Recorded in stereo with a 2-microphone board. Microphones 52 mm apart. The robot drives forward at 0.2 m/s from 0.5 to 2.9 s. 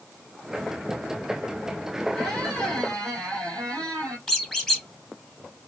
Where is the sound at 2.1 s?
10° left (ahead or behind), 2.5 m.